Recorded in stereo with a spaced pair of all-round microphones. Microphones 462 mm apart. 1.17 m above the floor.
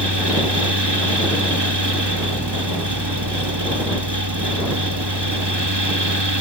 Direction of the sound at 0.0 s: 60° right (ahead or behind).